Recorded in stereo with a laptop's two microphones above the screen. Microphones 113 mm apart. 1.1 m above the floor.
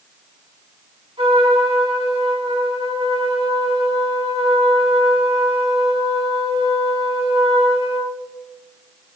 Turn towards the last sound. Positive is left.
turn(degrees=-60)  # may be behind; listen again after turning